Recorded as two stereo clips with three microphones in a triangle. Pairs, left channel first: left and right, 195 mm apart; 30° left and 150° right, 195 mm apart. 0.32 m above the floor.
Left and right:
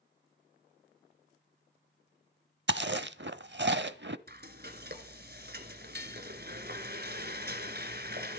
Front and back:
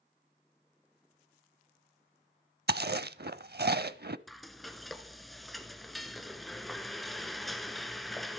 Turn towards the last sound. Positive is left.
turn(degrees=-60)